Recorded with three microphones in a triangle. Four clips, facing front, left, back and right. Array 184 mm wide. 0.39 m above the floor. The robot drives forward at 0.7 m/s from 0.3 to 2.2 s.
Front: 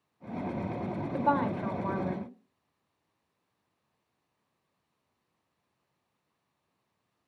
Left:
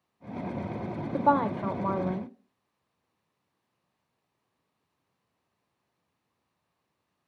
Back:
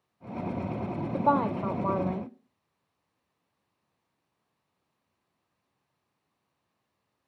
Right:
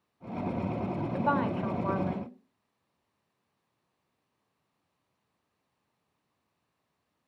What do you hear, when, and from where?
1.1 s a woman speaking: 115° left, 1.1 m; by 2.3 s 155° left, 1.5 m